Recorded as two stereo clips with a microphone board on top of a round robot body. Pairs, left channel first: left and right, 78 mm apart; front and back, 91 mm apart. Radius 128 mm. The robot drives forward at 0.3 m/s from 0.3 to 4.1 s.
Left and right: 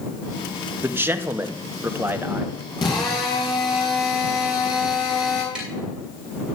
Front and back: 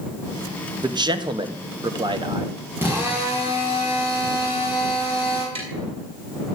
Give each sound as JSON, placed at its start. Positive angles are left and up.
{"t": 0.8, "sound": "a man speaking", "azimuth_deg": -150, "distance_m": 1.7}
{"t": 2.8, "sound": "a drill", "azimuth_deg": 115, "distance_m": 7.0}
{"t": 5.5, "sound": "tapping", "azimuth_deg": -170, "distance_m": 7.0}